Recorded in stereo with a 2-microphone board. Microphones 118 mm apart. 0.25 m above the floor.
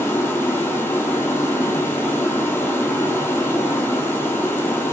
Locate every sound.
0.0 s running water: 20° left (ahead or behind), 1.0 m